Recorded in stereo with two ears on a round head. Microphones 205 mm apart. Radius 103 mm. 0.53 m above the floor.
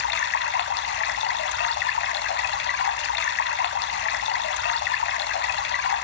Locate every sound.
0.0 s running water: 50° left (ahead or behind), 0.7 m